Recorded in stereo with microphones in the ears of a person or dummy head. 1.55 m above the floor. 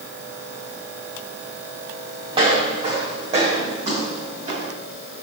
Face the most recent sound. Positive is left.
turn(degrees=-30)  # may be behind; listen again after turning